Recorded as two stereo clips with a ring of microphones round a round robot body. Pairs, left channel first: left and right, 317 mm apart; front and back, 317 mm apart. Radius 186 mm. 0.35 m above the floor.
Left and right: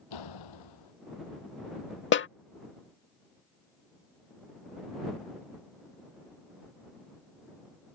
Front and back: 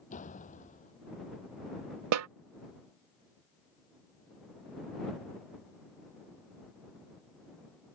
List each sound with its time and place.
0.1 s a door slam: 70° left
2.1 s a snare drum: 145° left